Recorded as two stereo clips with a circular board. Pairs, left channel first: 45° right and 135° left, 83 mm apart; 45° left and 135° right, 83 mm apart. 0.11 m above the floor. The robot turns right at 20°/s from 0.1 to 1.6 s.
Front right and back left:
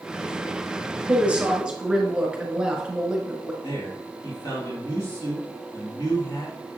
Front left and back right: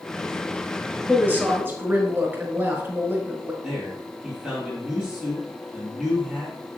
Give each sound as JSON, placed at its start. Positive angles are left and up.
{"t": 1.1, "sound": "a woman speaking", "azimuth_deg": -170, "distance_m": 1.1}
{"t": 3.6, "sound": "a man speaking", "azimuth_deg": -55, "distance_m": 3.0}